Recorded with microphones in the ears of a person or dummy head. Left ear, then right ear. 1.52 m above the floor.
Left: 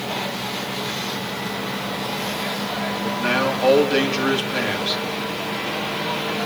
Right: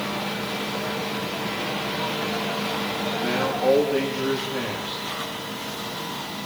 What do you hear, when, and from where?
3.0 s a man speaking: 45° left (ahead or behind), 3 m